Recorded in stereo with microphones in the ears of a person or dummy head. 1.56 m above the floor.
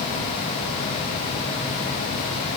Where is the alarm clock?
No alarm clock in this recording.